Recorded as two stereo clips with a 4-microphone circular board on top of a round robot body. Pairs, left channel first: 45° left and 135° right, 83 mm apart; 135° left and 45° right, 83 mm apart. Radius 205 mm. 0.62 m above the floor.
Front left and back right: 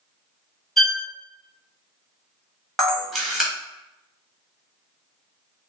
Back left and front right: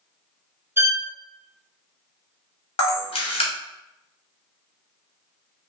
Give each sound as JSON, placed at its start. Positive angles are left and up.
{"t": 0.8, "sound": "a violin", "azimuth_deg": -40, "distance_m": 1.1}
{"t": 2.8, "sound": "a camera shutter", "azimuth_deg": 135, "distance_m": 1.2}